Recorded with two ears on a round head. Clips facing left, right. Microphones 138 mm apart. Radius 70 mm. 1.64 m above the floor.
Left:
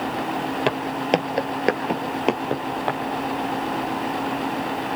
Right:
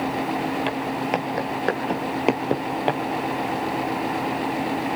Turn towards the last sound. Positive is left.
turn(degrees=-25)  # may be behind; listen again after turning